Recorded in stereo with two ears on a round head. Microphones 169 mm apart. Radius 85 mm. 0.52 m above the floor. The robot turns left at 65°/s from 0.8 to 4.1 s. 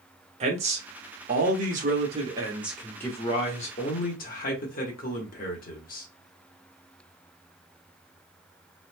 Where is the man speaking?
50° right, 1.0 m; by 6.1 s 95° left, 1.0 m.